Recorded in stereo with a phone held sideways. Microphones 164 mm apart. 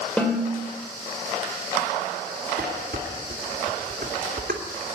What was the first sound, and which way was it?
A snare drum, 5° left (ahead or behind).